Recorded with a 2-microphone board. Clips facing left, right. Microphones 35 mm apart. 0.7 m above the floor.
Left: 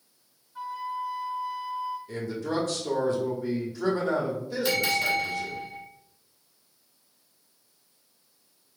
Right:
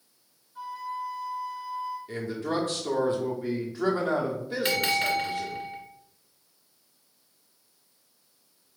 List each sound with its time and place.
0.6 s a flute: 30° left (ahead or behind), 1.9 m
2.1 s a man speaking: 30° right (ahead or behind), 1.2 m
4.7 s a bell: 45° right (ahead or behind), 1.6 m